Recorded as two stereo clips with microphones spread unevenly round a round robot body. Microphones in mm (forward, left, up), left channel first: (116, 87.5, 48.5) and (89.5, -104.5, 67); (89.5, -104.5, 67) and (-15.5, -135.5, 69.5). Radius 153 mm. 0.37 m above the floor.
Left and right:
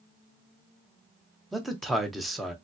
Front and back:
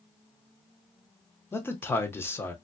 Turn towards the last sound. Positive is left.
turn(degrees=5)